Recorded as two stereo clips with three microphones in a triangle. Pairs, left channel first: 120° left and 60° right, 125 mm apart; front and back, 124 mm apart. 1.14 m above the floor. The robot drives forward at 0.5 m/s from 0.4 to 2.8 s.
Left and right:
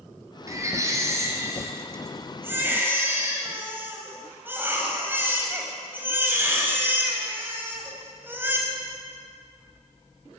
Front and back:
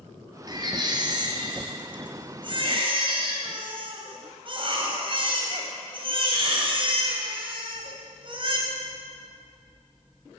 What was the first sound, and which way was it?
A baby crying, 125° right.